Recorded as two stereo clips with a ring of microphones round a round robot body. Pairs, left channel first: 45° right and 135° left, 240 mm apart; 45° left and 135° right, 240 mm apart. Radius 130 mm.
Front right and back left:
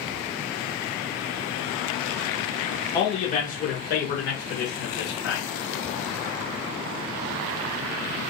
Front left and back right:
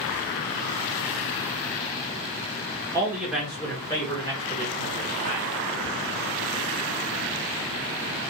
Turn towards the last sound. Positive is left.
turn(degrees=-10)